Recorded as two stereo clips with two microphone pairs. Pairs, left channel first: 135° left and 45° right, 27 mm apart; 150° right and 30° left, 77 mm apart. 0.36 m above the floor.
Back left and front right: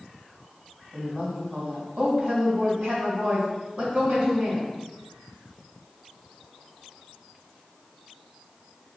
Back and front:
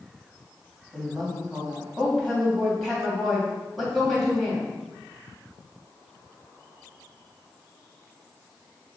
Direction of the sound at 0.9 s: 65° right.